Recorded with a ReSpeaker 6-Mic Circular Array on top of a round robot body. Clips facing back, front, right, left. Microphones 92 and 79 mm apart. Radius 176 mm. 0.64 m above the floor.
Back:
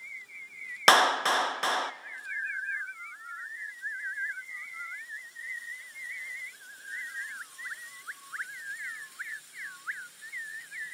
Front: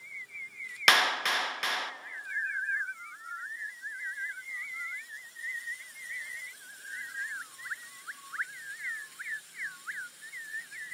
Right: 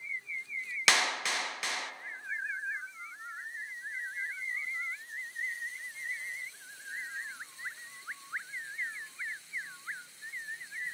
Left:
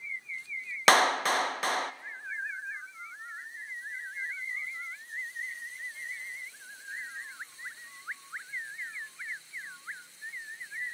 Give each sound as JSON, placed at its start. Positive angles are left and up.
{"t": 0.9, "sound": "a clap", "azimuth_deg": 130, "distance_m": 0.5}